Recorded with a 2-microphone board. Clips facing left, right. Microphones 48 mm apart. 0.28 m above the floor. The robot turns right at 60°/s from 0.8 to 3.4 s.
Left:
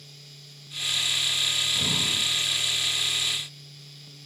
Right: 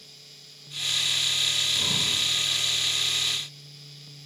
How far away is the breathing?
About 3.5 m.